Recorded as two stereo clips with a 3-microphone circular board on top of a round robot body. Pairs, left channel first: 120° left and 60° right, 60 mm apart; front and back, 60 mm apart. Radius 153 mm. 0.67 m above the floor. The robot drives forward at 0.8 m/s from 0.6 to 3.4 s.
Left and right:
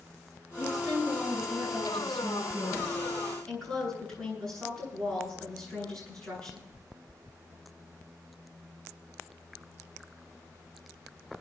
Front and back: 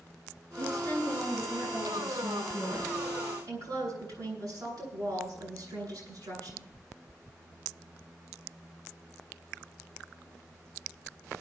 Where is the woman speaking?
150° right, 9 m; by 6.7 s 160° right, 11 m.